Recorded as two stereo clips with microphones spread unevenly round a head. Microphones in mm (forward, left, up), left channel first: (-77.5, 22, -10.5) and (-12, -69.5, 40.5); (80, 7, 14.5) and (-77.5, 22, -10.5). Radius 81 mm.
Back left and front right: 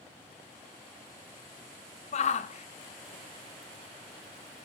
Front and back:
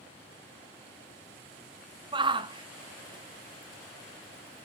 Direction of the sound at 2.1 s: 115° left.